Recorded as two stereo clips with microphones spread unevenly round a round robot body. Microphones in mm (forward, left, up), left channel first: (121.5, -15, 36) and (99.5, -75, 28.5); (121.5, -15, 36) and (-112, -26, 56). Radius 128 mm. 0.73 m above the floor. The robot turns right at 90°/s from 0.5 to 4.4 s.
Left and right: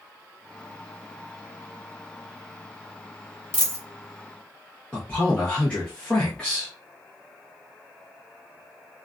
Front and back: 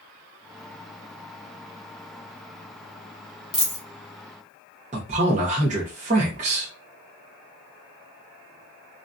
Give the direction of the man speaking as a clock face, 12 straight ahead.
7 o'clock.